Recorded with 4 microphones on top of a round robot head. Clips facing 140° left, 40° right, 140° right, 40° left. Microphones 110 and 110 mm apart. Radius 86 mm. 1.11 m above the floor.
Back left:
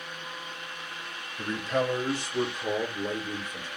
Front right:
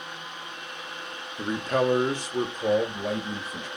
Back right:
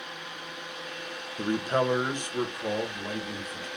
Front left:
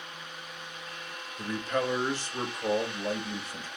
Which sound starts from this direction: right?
A man speaking, at 1.4 s.